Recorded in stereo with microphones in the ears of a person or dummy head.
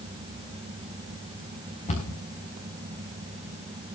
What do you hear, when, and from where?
1.9 s a cupboard door: 40° left (ahead or behind), 5 m